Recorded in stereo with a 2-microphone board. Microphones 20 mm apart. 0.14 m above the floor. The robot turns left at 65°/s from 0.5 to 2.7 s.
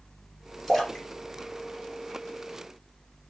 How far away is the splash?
About 3 m.